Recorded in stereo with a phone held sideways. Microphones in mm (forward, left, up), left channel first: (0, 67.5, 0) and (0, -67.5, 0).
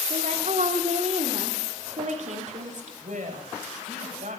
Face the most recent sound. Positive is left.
turn(degrees=-70)  # may be behind; listen again after turning